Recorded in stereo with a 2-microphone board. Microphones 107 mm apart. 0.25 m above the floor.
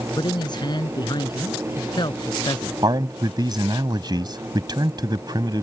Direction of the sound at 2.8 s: 40° right (ahead or behind).